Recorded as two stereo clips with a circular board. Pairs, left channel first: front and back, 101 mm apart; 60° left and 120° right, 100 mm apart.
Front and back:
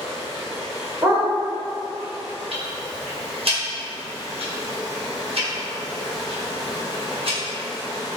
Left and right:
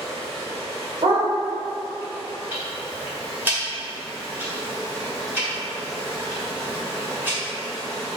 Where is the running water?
55° right, 1.4 m.